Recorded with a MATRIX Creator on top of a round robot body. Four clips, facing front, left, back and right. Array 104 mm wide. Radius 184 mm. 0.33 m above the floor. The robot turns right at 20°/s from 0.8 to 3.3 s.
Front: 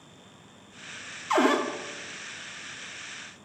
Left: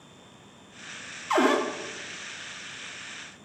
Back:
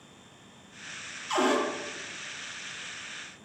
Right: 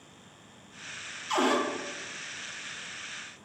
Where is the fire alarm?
I don't hear a fire alarm.